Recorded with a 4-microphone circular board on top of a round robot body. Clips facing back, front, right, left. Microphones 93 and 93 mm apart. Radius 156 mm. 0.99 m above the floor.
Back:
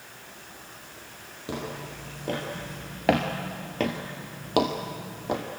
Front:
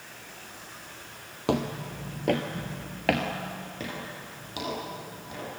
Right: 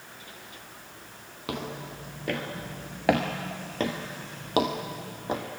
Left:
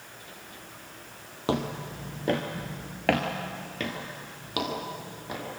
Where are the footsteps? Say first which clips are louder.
Front 7 dB, left 6 dB; 30° left, 1.8 m; by 5.4 s 150° right, 2.5 m.